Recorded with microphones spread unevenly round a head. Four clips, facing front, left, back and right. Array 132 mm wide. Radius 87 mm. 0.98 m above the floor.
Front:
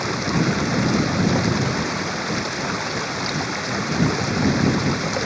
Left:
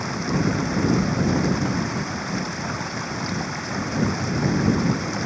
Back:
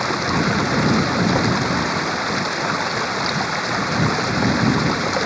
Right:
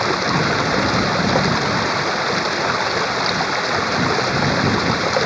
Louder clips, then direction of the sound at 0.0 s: Right 5 dB, back 2 dB; 100° right.